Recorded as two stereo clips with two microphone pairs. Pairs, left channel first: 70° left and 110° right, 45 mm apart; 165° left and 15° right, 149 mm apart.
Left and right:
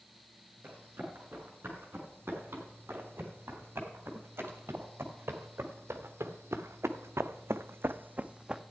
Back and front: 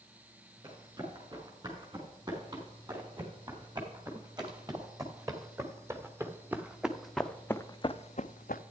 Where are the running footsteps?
70° right, 4.5 m; by 8.6 s 170° left, 0.6 m.